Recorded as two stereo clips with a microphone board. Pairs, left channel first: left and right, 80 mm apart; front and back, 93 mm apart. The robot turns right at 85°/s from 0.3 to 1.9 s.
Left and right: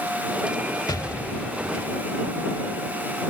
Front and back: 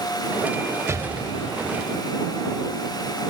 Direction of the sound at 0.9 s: 120° left.